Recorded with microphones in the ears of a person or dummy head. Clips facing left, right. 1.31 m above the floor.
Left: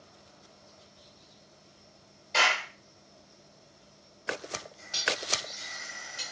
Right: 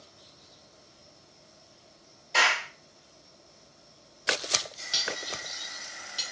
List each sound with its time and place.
2.3 s a clap: centre (ahead or behind), 1.9 m
4.9 s cutlery clinking: 45° right (ahead or behind), 1.8 m